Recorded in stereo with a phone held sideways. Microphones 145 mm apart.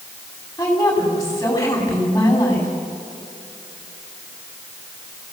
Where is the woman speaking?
20° left (ahead or behind), 8 m.